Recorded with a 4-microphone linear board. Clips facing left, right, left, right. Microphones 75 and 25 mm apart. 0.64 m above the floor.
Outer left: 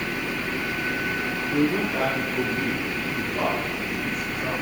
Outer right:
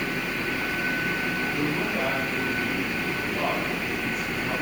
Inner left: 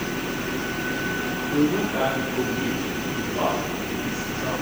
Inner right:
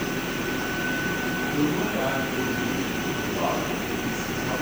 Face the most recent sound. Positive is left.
turn(degrees=25)  # may be behind; listen again after turning